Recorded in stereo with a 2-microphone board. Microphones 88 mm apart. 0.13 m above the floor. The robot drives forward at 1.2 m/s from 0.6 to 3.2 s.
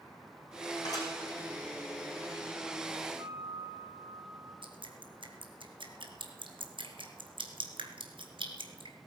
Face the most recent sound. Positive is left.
turn(degrees=-80)